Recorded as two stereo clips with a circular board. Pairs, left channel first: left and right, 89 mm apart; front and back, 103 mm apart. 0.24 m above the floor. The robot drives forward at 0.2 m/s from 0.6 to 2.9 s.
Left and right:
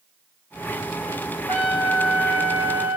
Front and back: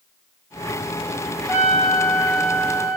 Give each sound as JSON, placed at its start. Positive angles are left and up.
{"t": 1.5, "sound": "a trumpet", "azimuth_deg": -115, "distance_m": 1.9}